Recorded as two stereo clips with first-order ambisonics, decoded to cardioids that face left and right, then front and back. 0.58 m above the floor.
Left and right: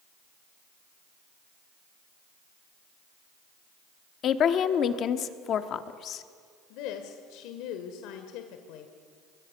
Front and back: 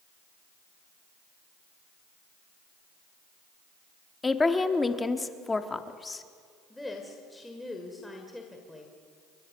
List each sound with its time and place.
4.2 s a woman speaking: 70° left, 1.0 m
6.7 s a woman speaking: 85° left, 1.8 m